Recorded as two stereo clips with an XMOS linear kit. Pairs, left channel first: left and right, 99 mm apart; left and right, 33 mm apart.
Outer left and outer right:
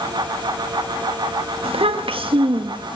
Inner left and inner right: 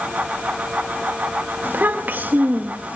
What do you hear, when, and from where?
1.6 s a child speaking: 70° right (ahead or behind), 1.8 m; by 3.0 s 50° right (ahead or behind), 1.8 m